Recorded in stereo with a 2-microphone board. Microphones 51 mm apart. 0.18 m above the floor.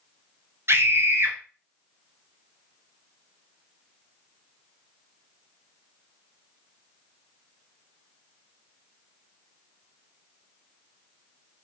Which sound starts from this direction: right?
A scream, at 0.7 s.